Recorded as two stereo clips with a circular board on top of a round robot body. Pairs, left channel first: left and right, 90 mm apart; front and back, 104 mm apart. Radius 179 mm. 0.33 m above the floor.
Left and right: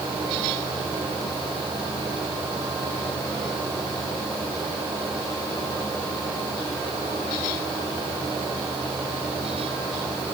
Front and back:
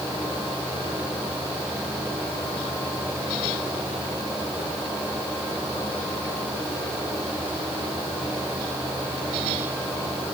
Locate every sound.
Only background noise.